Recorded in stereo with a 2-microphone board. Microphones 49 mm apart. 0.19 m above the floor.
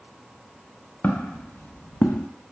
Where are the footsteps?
35° left (ahead or behind), 1.1 m; by 2.3 s 50° left (ahead or behind), 0.5 m.